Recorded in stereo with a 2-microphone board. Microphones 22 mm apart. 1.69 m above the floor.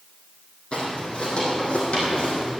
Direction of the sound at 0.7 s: 45° left (ahead or behind).